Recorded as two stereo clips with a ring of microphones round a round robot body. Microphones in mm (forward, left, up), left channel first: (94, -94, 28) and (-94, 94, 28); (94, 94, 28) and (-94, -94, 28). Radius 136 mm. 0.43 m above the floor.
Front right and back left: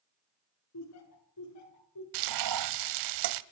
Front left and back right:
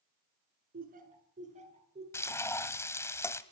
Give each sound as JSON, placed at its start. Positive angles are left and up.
{"t": 0.7, "sound": "laughter", "azimuth_deg": -75, "distance_m": 4.5}
{"t": 2.1, "sound": "frying", "azimuth_deg": 125, "distance_m": 0.9}